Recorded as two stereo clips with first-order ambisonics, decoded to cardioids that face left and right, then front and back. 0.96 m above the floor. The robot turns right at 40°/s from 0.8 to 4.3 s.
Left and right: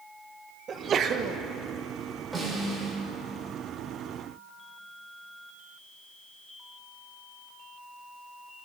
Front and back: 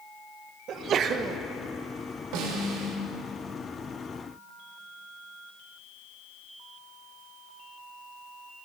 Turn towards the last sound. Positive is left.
turn(degrees=-95)